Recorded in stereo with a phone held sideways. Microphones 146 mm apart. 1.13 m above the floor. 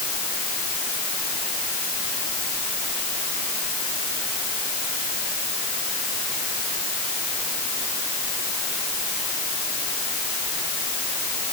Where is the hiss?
No hiss in this recording.